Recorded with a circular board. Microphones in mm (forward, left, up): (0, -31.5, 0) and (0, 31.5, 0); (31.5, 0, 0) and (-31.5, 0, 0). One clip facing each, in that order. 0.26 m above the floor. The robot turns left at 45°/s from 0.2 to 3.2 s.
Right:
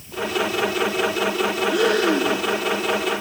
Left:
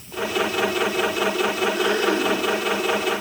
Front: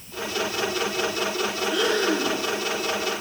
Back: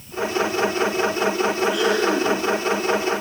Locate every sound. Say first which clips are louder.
1.7 s breathing: right 2 dB, back 3 dB; 90° right, 3.5 m; by 2.4 s 120° right, 3.5 m